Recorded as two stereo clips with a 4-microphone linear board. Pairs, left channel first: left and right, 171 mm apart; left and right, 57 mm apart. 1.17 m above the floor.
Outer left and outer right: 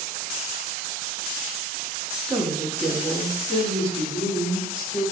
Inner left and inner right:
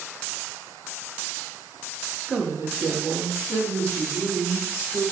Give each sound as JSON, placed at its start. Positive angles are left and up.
{"t": 2.3, "sound": "a woman speaking", "side_deg": -15, "distance_m": 0.7}